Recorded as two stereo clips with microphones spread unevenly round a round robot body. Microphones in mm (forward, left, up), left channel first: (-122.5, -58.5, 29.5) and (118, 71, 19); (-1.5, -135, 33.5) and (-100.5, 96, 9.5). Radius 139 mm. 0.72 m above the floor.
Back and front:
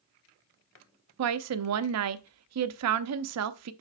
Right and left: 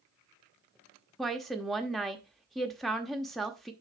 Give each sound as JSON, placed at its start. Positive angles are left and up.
{"t": 1.2, "sound": "a woman speaking", "azimuth_deg": 25, "distance_m": 0.7}